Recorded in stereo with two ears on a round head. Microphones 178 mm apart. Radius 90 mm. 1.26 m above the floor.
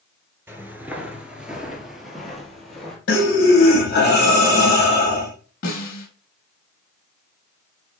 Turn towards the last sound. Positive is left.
turn(degrees=45)  # may be behind; listen again after turning